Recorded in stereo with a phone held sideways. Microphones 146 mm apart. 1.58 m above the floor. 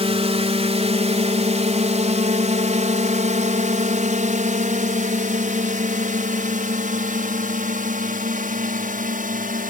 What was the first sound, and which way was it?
A drone, 45° right (ahead or behind).